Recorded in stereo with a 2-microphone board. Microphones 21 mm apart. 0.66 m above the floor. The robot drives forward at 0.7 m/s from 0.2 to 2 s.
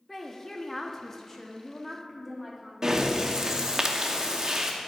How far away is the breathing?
About 0.6 m.